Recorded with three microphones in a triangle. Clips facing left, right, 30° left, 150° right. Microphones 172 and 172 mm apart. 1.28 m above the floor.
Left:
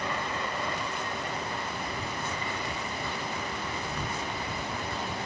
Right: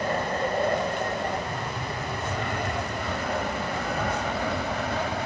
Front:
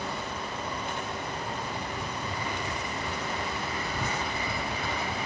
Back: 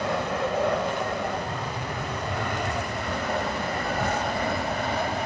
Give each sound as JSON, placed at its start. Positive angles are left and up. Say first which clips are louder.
{"t": 0.0, "sound": "an aircraft", "louder": "right 7 dB, back 9 dB", "azimuth_deg": -135}